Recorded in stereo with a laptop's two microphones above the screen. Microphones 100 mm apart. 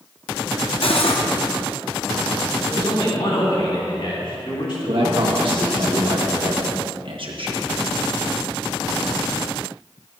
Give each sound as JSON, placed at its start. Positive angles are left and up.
{"t": 0.8, "sound": "cutlery clinking", "side_deg": 65, "distance_m": 0.8}
{"t": 2.7, "sound": "a man speaking", "side_deg": 60, "distance_m": 3.0}
{"t": 4.9, "sound": "a man speaking", "side_deg": -60, "distance_m": 1.4}